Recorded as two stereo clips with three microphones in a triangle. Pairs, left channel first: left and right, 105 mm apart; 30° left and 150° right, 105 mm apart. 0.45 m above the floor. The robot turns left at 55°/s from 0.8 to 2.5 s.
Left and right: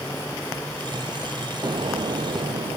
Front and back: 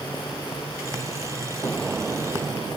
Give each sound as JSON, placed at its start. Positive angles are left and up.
{"t": 1.6, "sound": "an explosion", "azimuth_deg": -45}